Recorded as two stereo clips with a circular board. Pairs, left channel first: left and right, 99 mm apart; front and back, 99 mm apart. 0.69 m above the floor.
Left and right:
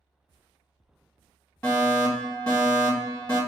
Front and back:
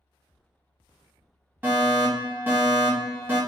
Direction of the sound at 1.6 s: 150° left.